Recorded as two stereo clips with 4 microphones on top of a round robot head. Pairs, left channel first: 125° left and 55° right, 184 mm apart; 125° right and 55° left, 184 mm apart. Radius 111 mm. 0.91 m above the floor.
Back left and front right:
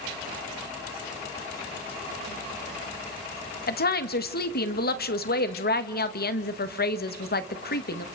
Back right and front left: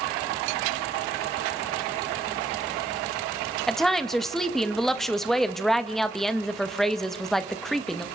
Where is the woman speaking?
150° left, 1.4 m.